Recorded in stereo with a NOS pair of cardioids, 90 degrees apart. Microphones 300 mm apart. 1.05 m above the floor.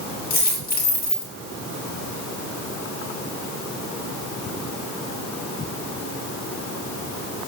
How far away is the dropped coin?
About 5 m.